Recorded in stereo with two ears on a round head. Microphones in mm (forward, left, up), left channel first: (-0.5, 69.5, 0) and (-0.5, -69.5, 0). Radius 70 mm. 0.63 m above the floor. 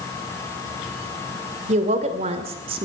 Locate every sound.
1.7 s a woman speaking: 50° right (ahead or behind), 3 m; by 2.9 s 35° right (ahead or behind), 2 m